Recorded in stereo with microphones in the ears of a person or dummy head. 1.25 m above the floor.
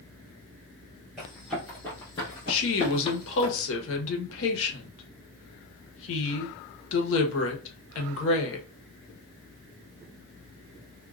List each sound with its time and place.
1.2 s running footsteps: 5° right (ahead or behind), 1.7 m; by 3.5 s 35° left (ahead or behind), 1.5 m
2.5 s a woman speaking: 75° left (ahead or behind), 1.2 m